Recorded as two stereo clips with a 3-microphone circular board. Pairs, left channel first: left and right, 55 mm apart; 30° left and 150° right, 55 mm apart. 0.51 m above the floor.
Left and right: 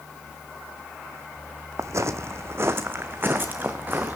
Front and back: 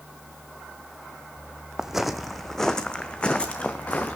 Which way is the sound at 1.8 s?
65° right.